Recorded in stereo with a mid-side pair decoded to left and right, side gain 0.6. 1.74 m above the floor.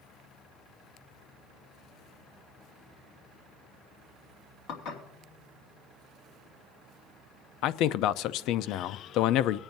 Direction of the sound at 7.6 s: 65° left.